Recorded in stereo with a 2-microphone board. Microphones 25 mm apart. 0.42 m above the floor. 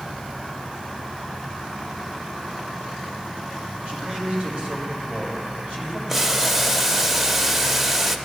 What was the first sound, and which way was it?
A man speaking, 45° right (ahead or behind).